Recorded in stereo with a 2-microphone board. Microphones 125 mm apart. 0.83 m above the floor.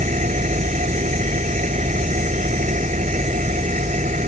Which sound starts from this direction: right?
An engine running, at 0.0 s.